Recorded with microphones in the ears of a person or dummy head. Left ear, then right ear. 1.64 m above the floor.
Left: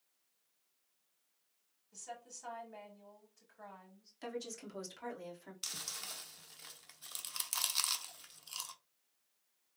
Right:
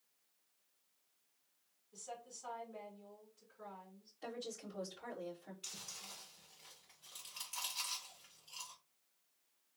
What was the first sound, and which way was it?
A woman speaking, 70° left (ahead or behind).